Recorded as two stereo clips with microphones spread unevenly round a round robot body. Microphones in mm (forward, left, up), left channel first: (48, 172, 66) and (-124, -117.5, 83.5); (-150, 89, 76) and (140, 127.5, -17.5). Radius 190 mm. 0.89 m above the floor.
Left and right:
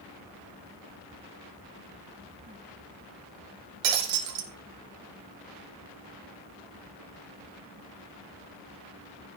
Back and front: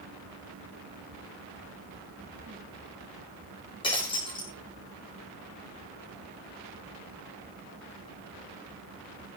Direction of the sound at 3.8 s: 105° right.